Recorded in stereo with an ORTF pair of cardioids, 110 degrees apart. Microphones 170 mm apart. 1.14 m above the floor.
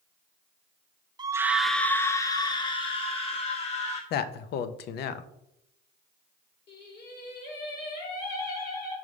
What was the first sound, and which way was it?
A scream, 25° right.